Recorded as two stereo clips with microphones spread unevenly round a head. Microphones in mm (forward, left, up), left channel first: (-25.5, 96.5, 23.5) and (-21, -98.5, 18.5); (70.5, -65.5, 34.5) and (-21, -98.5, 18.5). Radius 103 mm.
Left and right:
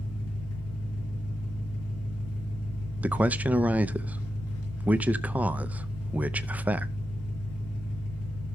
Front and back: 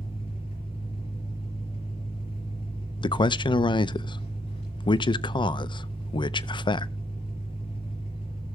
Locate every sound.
0.0 s an engine running: 70° left, 4.5 m
3.0 s a man speaking: 10° right, 0.5 m